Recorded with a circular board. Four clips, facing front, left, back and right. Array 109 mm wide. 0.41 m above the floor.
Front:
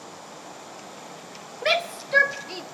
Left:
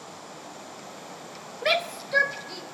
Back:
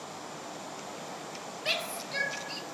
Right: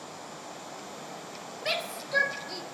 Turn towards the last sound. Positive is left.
turn(degrees=-5)